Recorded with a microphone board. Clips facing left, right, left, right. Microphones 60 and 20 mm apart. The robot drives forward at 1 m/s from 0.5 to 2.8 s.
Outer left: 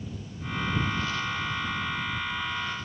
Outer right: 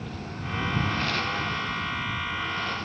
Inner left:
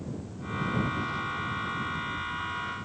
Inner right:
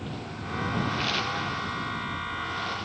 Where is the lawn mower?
85° right; by 2.9 s 75° right (ahead or behind).